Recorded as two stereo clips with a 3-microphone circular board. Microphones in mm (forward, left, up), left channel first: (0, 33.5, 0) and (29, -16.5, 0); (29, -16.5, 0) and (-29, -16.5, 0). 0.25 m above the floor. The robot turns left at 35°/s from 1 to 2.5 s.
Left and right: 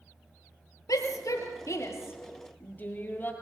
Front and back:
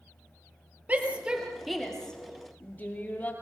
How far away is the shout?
About 5 m.